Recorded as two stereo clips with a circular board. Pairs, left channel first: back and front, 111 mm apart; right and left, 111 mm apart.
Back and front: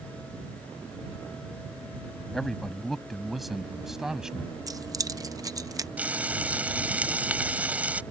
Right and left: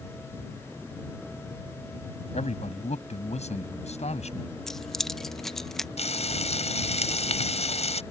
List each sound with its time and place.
2.3 s a man speaking: 95° right; by 4.5 s 85° right
4.7 s keys jangling: 5° right
6.0 s frying: 75° right